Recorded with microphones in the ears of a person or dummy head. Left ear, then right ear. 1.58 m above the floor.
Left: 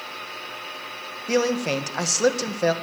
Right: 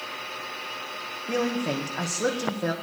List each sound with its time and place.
1.3 s a man speaking: 80° left, 1.6 m